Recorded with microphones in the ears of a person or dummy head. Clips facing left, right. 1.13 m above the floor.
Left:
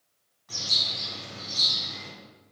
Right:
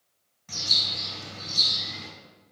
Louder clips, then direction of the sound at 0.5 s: Even; 35° right (ahead or behind).